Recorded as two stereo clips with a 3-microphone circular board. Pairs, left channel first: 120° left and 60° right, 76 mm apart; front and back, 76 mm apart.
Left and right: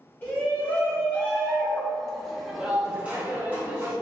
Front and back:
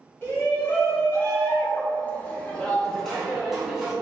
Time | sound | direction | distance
0.2 | a shout | 55° left | 1.9 m